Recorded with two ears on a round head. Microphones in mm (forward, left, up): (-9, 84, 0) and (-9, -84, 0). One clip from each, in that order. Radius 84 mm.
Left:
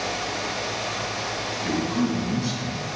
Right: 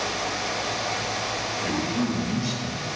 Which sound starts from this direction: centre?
A man speaking, at 1.6 s.